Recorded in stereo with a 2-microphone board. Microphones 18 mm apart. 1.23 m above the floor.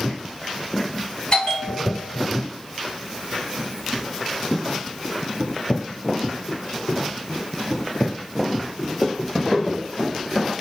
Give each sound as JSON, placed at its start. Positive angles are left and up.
{"t": 1.3, "sound": "a bell", "side_deg": 50, "distance_m": 1.6}